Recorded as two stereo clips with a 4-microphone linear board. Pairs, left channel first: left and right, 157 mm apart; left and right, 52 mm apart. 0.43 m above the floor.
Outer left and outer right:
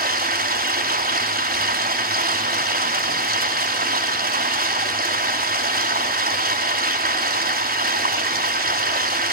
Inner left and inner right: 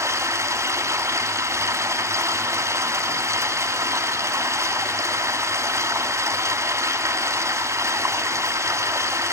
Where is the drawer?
No drawer in this recording.